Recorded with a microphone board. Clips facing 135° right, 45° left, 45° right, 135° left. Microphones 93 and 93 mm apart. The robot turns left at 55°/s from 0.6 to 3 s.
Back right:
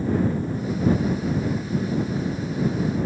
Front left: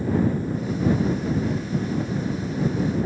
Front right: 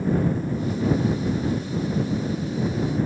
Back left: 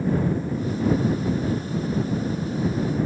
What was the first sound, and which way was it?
Only background noise.